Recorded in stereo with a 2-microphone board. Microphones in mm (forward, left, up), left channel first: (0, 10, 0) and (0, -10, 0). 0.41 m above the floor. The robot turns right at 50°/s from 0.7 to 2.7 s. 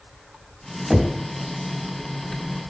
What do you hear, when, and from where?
0.9 s knocking: 10° right (ahead or behind), 2 m; by 1.2 s 10° left (ahead or behind), 2 m